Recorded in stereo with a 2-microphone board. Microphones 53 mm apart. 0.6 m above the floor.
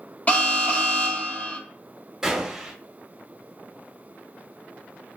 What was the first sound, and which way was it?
An alarm, 30° left (ahead or behind).